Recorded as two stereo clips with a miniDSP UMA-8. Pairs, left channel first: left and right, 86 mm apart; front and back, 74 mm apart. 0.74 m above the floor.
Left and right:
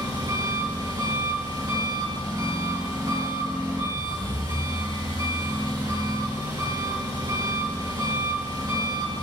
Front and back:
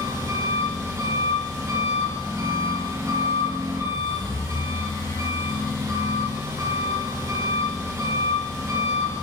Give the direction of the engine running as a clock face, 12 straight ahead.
4 o'clock.